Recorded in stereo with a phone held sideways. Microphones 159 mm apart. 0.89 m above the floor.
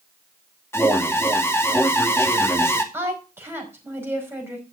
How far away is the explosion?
I don't hear an explosion.